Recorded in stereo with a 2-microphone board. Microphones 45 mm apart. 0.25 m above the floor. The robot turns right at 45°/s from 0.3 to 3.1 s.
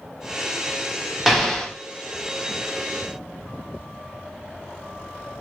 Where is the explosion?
5° right (ahead or behind), 0.8 m; by 1.7 s 15° left (ahead or behind), 0.8 m.